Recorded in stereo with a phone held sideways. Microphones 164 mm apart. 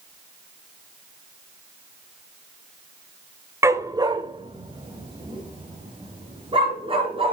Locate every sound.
3.6 s a dog barking: 15° right (ahead or behind), 0.7 m; by 7.3 s 35° right (ahead or behind), 4 m